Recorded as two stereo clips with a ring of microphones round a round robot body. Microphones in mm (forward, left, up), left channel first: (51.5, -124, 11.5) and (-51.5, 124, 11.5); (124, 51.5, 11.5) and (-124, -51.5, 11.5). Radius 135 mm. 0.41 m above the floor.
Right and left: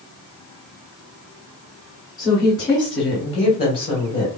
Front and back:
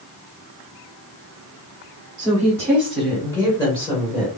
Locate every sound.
2.2 s a woman speaking: 120° right, 1.3 m; by 4.4 s 10° right, 1.5 m